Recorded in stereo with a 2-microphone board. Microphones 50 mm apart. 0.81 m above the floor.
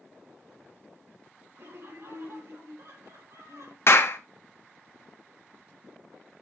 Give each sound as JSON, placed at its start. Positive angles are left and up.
{"t": 1.6, "sound": "laughter", "side_deg": -50, "distance_m": 3.5}
{"t": 3.9, "sound": "a clap", "side_deg": 50, "distance_m": 1.1}